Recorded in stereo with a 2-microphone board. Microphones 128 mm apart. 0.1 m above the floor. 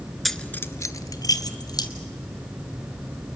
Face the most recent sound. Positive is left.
turn(degrees=30)  # may be behind; listen again after turning